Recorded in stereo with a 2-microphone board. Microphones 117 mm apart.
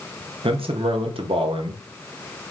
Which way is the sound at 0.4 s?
50° right (ahead or behind).